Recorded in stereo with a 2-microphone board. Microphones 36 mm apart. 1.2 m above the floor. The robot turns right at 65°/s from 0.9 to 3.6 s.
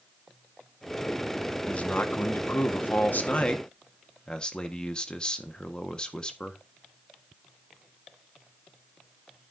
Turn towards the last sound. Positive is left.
turn(degrees=155)